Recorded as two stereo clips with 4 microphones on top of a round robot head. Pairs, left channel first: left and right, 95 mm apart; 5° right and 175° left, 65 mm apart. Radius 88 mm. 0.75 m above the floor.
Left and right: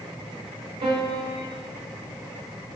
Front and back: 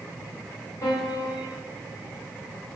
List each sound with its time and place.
0.8 s a piano: 55° right, 1.1 m